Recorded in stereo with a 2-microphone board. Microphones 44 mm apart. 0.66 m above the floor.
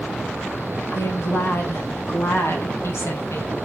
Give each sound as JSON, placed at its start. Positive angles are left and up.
{"t": 0.9, "sound": "a woman speaking", "side_deg": 75, "distance_m": 5.5}